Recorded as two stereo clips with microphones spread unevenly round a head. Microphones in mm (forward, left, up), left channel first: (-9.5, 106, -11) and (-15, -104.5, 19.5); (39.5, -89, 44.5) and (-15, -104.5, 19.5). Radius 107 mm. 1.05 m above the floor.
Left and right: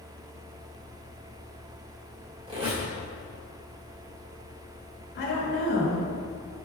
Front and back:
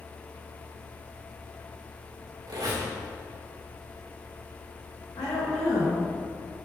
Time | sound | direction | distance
2.5 | a squeak | 155° right | 2 m
5.2 | a woman speaking | 50° left | 2.0 m